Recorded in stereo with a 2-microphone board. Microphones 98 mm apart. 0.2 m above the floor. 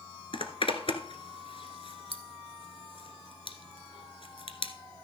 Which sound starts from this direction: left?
A zipper, at 0.3 s.